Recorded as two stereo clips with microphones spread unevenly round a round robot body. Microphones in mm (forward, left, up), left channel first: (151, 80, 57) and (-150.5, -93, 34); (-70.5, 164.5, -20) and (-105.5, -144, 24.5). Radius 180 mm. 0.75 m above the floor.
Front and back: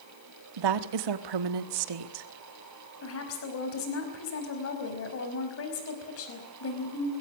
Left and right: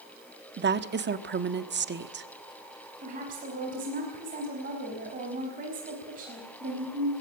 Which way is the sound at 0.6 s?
160° right.